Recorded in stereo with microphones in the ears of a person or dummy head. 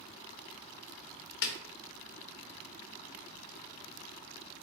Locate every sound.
1.4 s a snare drum: 75° left (ahead or behind), 0.5 m